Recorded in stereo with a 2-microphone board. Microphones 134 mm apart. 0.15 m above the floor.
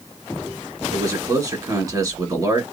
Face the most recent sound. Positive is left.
turn(degrees=-30)  # may be behind; listen again after turning